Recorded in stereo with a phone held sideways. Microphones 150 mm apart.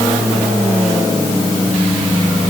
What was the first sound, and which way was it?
Only background noise.